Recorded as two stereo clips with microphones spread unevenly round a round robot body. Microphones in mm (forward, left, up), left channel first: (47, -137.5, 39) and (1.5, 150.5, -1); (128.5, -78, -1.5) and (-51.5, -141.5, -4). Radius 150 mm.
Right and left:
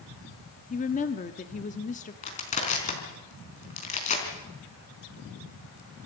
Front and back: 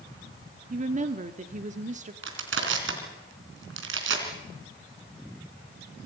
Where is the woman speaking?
145° right, 1.2 m.